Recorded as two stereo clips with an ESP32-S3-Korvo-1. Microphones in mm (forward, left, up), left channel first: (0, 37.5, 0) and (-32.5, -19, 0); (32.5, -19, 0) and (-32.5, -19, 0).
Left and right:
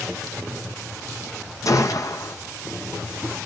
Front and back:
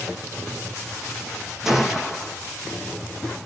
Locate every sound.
1.6 s a gunshot: 95° left, 1.2 m